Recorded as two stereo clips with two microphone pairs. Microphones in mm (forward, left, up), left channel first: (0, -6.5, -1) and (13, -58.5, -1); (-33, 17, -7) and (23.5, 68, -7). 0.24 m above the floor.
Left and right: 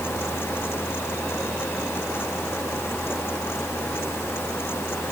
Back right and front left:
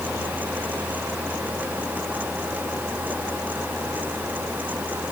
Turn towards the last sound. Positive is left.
No sound to turn to.